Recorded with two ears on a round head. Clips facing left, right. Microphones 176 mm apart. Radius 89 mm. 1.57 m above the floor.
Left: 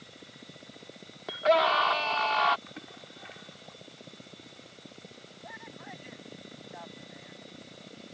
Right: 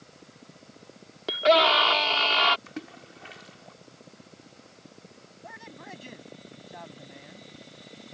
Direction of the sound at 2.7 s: 50° right (ahead or behind).